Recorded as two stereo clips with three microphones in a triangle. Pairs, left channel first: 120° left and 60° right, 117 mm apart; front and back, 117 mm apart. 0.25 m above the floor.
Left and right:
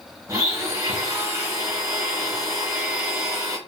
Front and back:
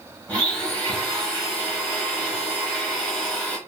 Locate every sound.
0.3 s a blender: 65° right, 1.1 m